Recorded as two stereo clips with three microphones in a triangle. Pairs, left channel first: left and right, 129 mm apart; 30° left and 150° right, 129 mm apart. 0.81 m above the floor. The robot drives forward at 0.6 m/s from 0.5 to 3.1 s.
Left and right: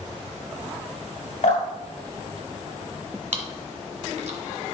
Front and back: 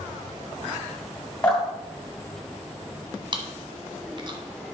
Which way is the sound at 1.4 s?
90° left.